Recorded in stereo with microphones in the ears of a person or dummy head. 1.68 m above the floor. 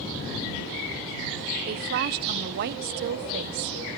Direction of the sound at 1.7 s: 60° right (ahead or behind).